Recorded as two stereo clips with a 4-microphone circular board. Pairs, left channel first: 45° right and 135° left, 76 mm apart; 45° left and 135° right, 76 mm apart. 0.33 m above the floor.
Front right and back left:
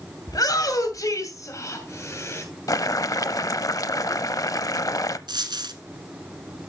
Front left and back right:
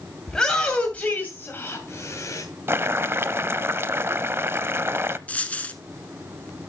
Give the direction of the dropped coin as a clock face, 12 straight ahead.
8 o'clock.